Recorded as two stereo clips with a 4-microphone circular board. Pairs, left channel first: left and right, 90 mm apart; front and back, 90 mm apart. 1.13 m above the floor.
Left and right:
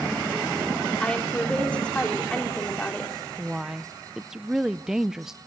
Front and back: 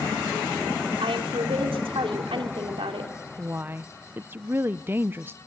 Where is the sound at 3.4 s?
165° right, 0.5 m.